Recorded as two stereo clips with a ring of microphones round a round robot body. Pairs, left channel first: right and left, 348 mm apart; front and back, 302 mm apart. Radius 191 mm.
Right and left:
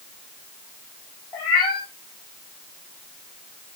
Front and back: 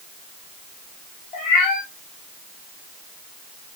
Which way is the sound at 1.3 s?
65° right.